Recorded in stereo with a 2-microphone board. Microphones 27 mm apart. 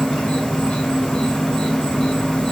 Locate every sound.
0.0 s an insect: 35° left (ahead or behind), 1.9 m